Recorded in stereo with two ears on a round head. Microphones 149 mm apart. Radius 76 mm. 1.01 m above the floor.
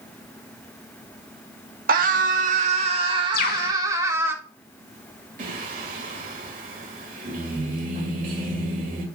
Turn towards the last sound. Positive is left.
turn(degrees=-50)  # may be behind; listen again after turning